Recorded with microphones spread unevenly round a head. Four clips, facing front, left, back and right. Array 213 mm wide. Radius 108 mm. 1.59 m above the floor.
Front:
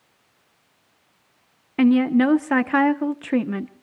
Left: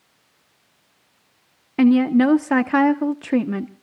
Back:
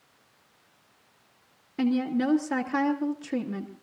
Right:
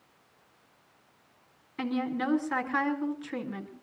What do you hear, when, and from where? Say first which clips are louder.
1.8 s a woman speaking: left 16 dB, front 9 dB; 55° left, 1.0 m